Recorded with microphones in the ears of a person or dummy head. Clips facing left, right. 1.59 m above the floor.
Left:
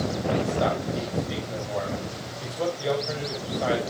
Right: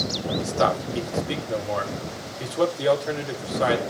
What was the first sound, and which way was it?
A man speaking, 80° right.